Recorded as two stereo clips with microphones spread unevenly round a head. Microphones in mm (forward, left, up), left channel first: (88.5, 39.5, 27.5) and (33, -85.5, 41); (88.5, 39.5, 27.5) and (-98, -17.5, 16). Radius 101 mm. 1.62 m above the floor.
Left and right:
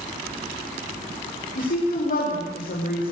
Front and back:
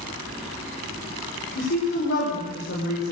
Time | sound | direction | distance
1.6 | a woman speaking | 50° left | 5.5 m